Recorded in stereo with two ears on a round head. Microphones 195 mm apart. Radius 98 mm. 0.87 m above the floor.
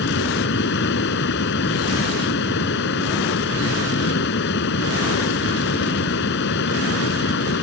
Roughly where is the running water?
Left.